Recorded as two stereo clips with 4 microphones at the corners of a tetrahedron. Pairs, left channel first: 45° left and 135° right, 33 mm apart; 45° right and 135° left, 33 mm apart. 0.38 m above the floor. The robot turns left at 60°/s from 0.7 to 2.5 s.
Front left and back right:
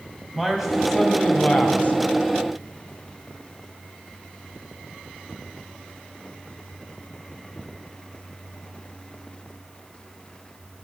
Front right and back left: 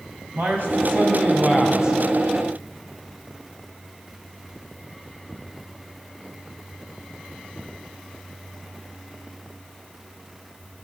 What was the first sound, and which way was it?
A man speaking, 140° left.